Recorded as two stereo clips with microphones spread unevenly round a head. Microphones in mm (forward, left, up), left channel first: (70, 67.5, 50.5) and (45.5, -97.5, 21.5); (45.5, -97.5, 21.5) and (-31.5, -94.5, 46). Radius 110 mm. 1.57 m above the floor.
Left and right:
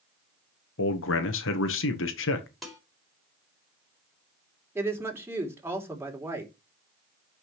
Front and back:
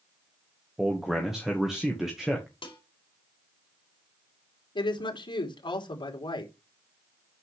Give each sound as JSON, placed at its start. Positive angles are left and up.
{"t": 0.8, "sound": "a man speaking", "azimuth_deg": 90, "distance_m": 1.7}
{"t": 2.6, "sound": "dishes clattering", "azimuth_deg": -5, "distance_m": 4.5}
{"t": 4.8, "sound": "a woman speaking", "azimuth_deg": -20, "distance_m": 3.5}